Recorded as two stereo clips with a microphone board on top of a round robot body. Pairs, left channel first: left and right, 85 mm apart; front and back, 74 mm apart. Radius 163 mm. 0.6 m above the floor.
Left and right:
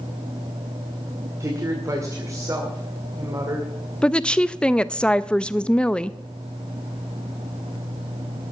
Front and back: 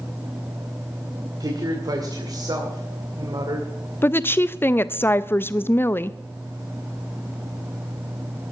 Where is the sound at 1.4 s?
145° right, 2 m.